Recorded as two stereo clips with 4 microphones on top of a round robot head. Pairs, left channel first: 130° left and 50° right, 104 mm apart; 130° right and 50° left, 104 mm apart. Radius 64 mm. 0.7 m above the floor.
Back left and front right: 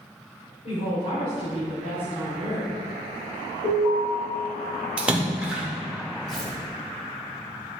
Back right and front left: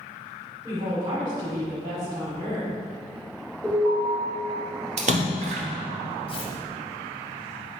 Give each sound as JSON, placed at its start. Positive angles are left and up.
{"t": 0.6, "sound": "a woman speaking", "azimuth_deg": 110, "distance_m": 2.5}
{"t": 3.6, "sound": "an alarm", "azimuth_deg": 145, "distance_m": 3.0}
{"t": 5.0, "sound": "a splash", "azimuth_deg": 30, "distance_m": 0.8}
{"t": 6.3, "sound": "tearing paper", "azimuth_deg": -145, "distance_m": 1.6}